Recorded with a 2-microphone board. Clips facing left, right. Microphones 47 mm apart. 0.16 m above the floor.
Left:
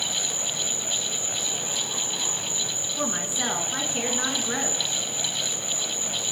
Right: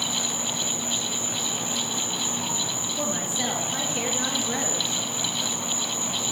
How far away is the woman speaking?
About 1.4 m.